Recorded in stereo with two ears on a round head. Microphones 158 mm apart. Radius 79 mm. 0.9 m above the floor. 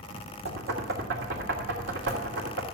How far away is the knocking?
About 2.5 m.